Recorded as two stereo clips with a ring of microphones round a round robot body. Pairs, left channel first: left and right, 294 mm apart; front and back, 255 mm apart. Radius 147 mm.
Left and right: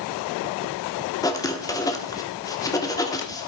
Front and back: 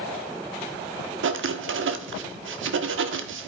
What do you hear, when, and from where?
1.2 s writing: 165° left, 1.1 m